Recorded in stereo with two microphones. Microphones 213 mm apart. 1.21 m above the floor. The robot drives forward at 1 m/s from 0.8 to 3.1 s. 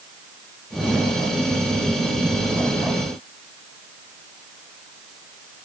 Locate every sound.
Only background noise.